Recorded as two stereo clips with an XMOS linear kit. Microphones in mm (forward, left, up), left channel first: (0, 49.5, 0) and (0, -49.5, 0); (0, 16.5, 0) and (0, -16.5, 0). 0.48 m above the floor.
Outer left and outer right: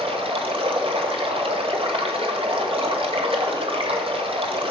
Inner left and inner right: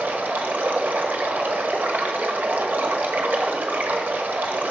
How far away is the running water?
About 1.2 m.